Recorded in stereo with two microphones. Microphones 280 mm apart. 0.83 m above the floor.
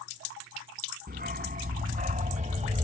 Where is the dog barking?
35° right (ahead or behind); by 2.8 s 25° right (ahead or behind).